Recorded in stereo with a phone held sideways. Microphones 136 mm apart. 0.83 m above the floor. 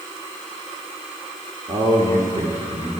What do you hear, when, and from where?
1.7 s a man speaking: 50° right (ahead or behind), 1.6 m; by 3.0 s 45° right (ahead or behind), 2.5 m